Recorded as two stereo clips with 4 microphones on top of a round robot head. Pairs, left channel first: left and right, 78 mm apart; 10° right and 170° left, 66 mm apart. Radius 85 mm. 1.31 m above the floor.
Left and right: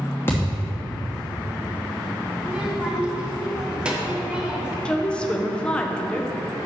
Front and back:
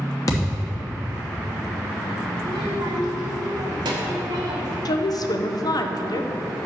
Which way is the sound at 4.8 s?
10° left.